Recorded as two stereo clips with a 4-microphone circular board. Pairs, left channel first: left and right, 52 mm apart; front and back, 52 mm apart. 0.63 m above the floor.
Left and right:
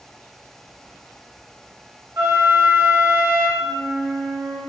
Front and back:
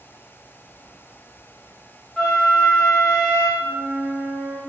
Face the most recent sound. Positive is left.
turn(degrees=15)